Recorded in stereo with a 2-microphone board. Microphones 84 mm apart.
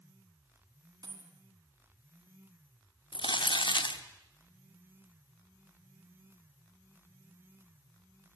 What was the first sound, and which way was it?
A dropped coin, 55° right (ahead or behind).